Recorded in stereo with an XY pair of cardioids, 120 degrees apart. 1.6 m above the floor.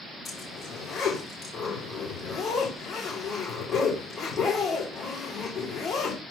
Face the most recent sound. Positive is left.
turn(degrees=50)